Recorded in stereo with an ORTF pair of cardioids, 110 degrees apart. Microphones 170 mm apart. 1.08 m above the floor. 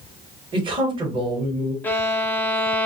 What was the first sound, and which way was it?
A man speaking, 30° right.